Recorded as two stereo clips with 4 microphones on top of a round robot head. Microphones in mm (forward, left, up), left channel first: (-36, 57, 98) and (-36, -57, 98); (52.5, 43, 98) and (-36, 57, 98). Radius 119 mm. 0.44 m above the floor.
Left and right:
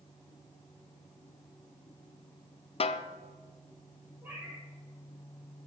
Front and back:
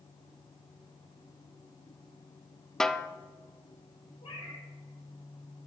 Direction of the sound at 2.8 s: 75° left.